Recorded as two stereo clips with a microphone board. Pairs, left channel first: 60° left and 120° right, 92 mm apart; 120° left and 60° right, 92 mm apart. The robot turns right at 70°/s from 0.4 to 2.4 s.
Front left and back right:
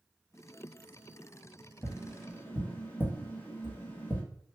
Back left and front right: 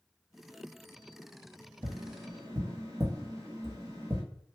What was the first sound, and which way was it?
Tapping, 50° right.